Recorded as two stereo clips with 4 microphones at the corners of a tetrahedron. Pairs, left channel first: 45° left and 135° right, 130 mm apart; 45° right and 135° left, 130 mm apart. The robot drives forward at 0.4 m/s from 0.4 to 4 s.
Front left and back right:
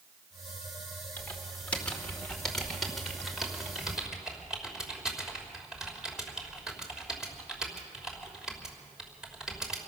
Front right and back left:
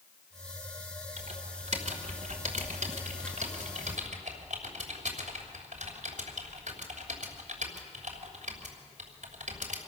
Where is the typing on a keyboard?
120° left, 2.5 m; by 9.8 s 140° left, 3 m.